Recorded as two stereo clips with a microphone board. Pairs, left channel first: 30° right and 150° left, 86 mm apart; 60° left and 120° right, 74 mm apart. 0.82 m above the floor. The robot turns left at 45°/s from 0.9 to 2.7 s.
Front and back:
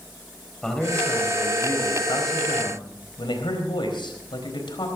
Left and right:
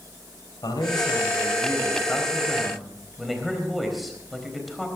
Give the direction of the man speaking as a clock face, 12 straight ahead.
10 o'clock.